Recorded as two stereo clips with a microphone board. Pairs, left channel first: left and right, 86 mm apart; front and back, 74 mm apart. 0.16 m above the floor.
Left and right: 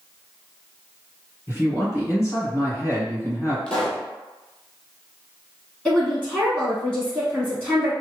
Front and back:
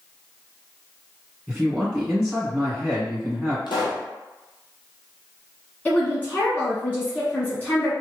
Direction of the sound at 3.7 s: 10° left.